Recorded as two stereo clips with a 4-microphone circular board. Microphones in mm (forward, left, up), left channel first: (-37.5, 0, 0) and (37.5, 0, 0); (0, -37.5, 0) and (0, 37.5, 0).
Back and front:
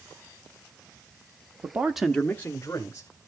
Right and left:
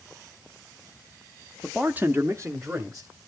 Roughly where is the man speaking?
Ahead.